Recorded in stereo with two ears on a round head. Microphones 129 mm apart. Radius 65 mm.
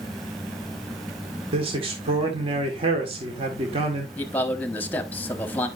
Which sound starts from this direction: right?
A man speaking, at 1.5 s.